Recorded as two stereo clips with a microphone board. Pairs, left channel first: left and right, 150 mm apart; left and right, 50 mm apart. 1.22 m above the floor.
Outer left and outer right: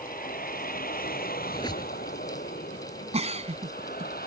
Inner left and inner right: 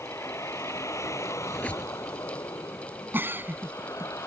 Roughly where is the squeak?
Left.